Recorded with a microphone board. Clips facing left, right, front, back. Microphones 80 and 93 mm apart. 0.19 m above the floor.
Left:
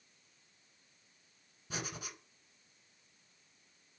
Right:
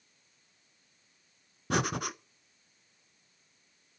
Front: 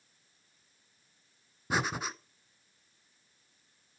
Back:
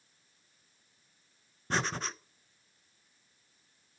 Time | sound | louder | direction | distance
1.7 | breathing | right 13 dB, front 1 dB | 80° right | 0.6 m